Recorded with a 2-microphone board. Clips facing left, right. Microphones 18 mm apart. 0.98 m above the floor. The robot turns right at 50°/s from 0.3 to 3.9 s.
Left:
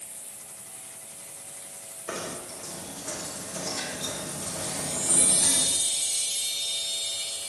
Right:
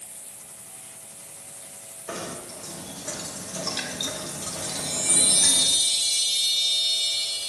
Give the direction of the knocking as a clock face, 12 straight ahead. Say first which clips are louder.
Even; 7 o'clock.